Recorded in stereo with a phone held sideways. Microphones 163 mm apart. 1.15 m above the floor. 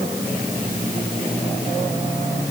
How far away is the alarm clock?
I don't hear an alarm clock.